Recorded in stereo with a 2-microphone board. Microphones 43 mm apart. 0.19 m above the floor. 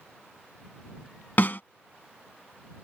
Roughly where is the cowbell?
No cowbell in this recording.